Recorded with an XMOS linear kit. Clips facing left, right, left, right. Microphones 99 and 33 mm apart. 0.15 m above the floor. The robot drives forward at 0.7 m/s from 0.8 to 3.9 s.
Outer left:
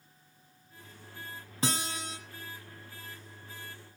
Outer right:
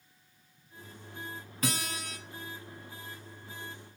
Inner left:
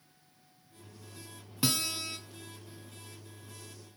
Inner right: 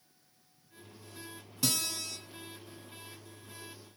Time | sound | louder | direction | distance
1.6 | a guitar | outer left 1 dB, inner left 2 dB | 30° left (ahead or behind) | 1.5 m